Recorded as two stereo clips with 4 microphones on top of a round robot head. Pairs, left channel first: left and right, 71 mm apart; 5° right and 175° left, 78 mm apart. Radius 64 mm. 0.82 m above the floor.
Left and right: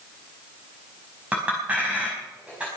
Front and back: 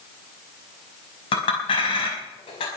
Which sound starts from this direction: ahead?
A clink, at 1.3 s.